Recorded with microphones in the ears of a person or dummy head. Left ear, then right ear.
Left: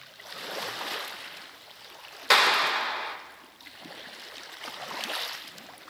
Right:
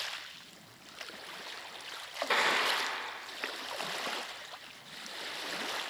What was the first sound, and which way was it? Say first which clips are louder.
A clap: left 8 dB; 50° left (ahead or behind).